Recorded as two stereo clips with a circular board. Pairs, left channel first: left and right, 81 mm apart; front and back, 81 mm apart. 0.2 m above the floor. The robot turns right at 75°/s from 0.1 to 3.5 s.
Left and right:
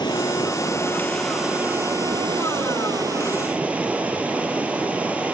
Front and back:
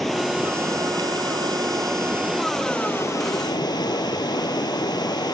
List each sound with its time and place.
0.0 s running water: 90° left, 0.9 m; by 5.3 s 15° right, 0.9 m